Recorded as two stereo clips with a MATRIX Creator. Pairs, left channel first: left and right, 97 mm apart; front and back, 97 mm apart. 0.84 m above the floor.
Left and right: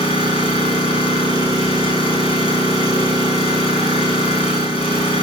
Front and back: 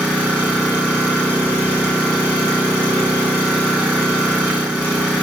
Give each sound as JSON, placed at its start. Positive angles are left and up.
{"t": 0.0, "sound": "an engine running", "azimuth_deg": 70, "distance_m": 4.5}